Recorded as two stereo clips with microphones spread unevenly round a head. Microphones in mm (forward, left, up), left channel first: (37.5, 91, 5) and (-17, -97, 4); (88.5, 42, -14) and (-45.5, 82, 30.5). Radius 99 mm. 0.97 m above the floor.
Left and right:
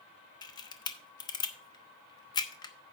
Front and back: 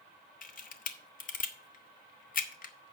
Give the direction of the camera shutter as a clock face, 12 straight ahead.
12 o'clock.